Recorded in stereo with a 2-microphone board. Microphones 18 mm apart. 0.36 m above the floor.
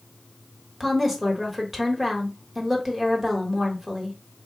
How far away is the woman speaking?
About 1.1 m.